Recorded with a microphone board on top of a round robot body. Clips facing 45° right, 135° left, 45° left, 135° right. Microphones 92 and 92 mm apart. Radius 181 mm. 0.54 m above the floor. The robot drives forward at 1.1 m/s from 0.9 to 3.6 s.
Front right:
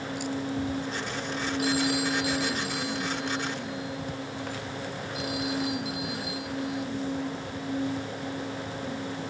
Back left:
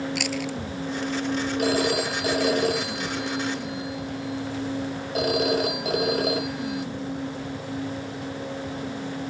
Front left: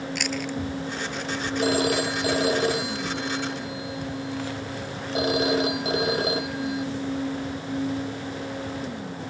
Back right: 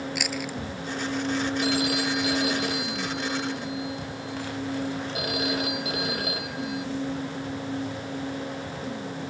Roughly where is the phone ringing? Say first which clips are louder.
Back left 3 dB, front left 3 dB; left.